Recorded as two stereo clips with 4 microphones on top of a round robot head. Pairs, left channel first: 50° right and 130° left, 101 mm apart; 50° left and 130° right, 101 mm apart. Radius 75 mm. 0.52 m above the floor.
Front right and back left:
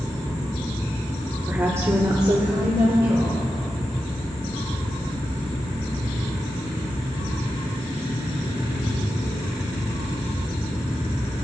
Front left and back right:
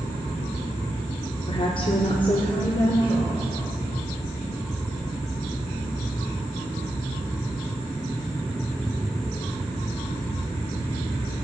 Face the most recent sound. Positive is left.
turn(degrees=95)